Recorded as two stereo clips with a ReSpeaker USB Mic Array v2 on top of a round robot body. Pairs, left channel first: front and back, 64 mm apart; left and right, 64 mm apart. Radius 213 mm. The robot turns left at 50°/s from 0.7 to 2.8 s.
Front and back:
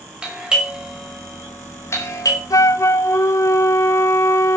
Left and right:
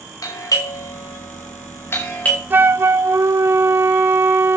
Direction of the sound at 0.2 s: 105° left.